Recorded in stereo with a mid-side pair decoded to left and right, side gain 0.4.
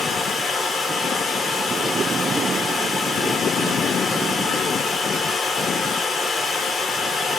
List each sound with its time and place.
0.0 s running water: 60° left, 1.9 m